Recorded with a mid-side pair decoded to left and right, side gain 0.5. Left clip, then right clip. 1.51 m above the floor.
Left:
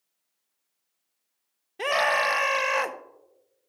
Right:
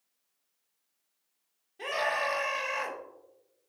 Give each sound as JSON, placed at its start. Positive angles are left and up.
{"t": 1.8, "sound": "a scream", "azimuth_deg": 60, "distance_m": 1.1}